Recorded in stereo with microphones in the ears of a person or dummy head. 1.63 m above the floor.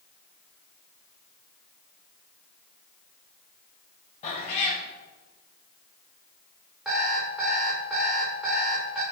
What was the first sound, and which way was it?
A cat meowing, 35° left (ahead or behind).